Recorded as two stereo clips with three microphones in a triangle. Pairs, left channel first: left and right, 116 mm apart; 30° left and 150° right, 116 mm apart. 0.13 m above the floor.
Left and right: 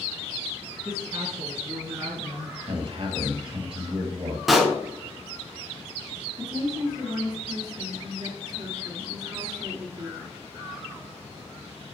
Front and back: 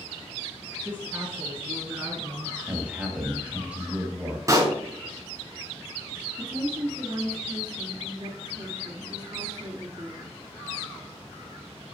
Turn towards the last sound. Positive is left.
turn(degrees=-120)